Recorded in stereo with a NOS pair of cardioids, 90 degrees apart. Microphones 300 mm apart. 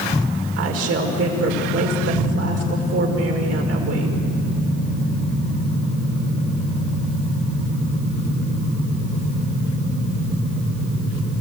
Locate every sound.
0.6 s a woman speaking: 55° right, 5 m